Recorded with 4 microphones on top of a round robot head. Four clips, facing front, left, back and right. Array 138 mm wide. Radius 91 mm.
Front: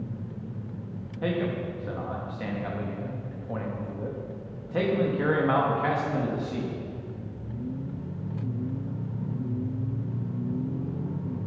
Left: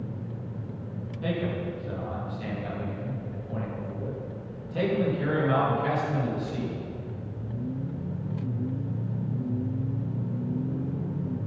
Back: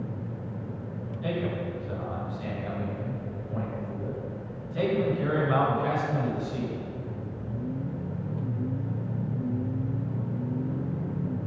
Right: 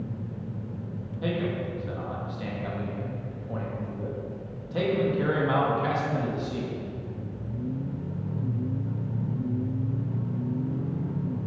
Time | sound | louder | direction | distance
1.2 | a man speaking | right 1 dB, front 2 dB | 15° right | 3 m